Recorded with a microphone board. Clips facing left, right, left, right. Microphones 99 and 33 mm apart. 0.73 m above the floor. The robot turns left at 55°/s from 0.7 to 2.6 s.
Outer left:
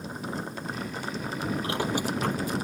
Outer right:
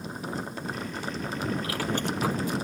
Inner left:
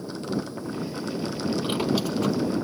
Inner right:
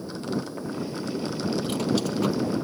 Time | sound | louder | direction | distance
1.6 | a squeak | outer left 1 dB, inner left 1 dB | 30° left | ?